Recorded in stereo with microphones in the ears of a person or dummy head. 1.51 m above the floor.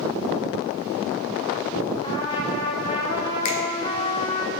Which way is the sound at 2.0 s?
25° left (ahead or behind).